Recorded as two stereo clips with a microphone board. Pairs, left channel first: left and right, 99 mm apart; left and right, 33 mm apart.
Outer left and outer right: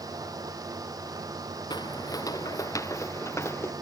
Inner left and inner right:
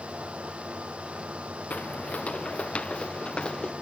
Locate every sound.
1.7 s footsteps: 45° left (ahead or behind); by 3.7 s 25° left (ahead or behind)